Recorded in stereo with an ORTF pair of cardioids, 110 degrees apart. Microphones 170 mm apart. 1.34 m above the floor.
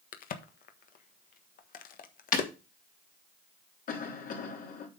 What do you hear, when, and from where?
0.1 s a crack: 55° left, 1.4 m
2.3 s breaking glass: 55° left, 4 m
3.9 s a cough: 55° left, 3.5 m